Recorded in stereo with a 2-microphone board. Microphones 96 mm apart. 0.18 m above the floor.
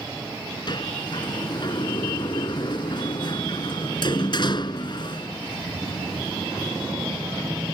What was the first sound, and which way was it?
A sliding door, 50° left (ahead or behind).